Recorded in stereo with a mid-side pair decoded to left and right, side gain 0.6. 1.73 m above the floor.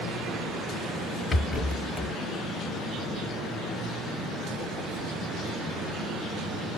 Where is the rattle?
25° left, 0.6 m.